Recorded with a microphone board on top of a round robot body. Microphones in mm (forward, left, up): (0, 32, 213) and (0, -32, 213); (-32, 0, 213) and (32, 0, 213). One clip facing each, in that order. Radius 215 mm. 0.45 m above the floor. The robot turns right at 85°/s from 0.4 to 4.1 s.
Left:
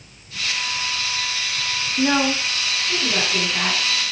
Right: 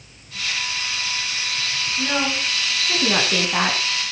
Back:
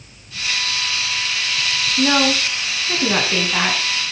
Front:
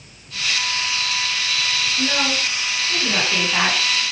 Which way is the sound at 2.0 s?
135° left.